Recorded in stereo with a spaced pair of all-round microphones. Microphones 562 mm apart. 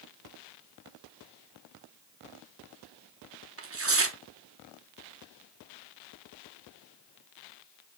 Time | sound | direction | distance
3.6 | tearing paper | 25° right (ahead or behind) | 0.5 m